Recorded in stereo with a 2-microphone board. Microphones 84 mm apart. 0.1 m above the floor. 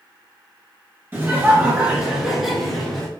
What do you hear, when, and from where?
1.1 s laughter: 30° right (ahead or behind), 1.9 m; by 3.1 s 10° left (ahead or behind), 1.8 m